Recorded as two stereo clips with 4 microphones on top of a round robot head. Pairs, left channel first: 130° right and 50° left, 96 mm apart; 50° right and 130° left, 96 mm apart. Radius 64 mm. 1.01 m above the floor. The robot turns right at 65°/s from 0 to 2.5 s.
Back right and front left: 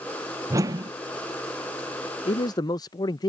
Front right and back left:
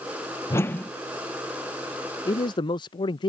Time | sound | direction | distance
0.5 | a whoosh | straight ahead | ?
2.2 | a man speaking | 100° right | ?